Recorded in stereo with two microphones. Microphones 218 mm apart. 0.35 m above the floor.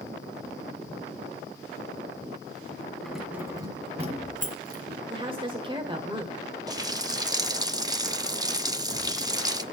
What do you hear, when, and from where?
3.0 s keys jangling: 5° left (ahead or behind), 1.6 m; by 5.0 s 45° right (ahead or behind), 2.5 m
5.1 s a woman speaking: 25° right (ahead or behind), 1.3 m
6.7 s a running tap: 15° right (ahead or behind), 0.6 m